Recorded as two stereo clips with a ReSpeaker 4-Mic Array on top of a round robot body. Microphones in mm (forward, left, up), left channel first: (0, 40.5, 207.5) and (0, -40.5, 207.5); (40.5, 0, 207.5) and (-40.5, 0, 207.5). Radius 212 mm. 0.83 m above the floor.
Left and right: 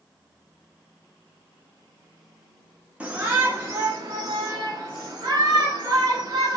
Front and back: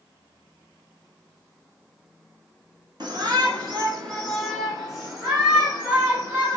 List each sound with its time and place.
3.0 s a shout: 160° right, 1.0 m; by 6.6 s 130° right, 2.5 m